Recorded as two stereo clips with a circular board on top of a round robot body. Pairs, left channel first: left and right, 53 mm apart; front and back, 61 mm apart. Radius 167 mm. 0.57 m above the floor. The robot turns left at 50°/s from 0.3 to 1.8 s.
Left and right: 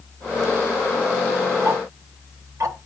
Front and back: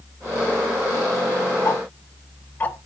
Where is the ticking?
60° right, 1.1 m; by 2.8 s 65° right, 1.1 m.